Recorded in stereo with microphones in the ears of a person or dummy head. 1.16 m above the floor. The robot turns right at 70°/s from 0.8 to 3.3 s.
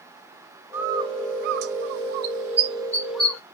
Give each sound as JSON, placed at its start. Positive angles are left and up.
{"t": 0.7, "sound": "a bird", "side_deg": -10, "distance_m": 0.6}